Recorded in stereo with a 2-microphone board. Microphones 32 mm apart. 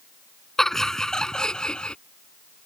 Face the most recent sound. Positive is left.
turn(degrees=35)  # may be behind; listen again after turning